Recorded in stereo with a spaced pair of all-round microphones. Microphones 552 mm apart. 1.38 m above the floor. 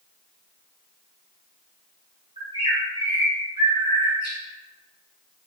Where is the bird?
10° right (ahead or behind), 1.1 m.